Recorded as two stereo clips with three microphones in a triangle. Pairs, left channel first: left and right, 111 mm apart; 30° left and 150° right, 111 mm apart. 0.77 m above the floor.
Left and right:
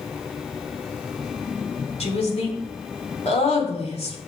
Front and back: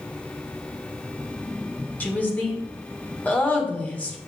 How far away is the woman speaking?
About 2.5 m.